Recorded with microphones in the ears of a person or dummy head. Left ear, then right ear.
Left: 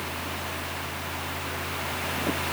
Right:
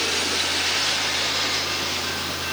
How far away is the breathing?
I don't hear breathing.